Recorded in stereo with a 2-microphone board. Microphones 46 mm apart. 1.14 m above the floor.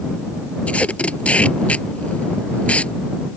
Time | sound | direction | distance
0.7 | tape being pulled | 30° left (ahead or behind) | ?